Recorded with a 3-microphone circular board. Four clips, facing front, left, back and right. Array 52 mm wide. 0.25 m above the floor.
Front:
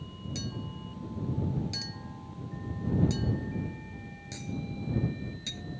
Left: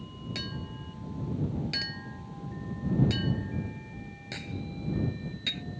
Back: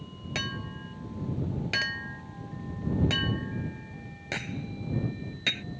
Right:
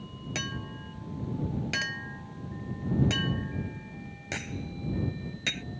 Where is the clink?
155° right.